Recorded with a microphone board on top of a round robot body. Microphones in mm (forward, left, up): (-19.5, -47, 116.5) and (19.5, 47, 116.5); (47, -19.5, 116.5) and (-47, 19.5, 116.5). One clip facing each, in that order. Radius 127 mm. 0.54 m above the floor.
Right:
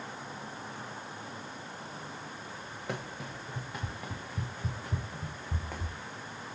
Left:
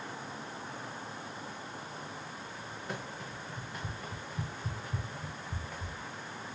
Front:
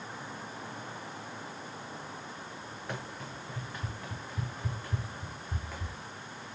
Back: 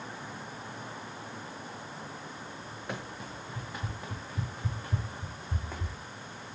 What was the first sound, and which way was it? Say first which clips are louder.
Running footsteps: right 3 dB, back 1 dB; 120° right.